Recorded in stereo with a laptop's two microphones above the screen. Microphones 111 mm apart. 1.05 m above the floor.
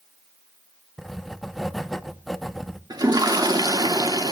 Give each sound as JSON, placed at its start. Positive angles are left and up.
{"t": 1.0, "sound": "writing", "side_deg": 0, "distance_m": 0.8}
{"t": 2.9, "sound": "a toilet flushing", "side_deg": -40, "distance_m": 3.0}